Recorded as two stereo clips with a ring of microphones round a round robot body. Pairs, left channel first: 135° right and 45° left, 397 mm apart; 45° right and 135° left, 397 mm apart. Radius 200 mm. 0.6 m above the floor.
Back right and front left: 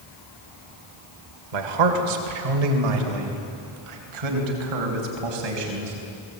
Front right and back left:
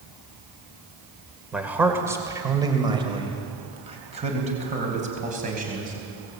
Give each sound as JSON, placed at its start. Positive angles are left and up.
{"t": 1.5, "sound": "a man speaking", "azimuth_deg": 50, "distance_m": 2.5}